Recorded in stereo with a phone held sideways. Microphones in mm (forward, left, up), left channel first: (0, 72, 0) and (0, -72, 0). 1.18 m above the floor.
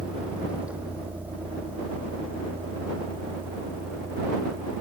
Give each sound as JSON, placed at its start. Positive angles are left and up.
{"t": 0.0, "sound": "a vehicle", "side_deg": -5}